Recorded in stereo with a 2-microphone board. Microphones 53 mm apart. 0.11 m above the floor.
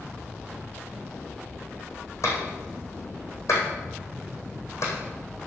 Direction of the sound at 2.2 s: 65° left (ahead or behind).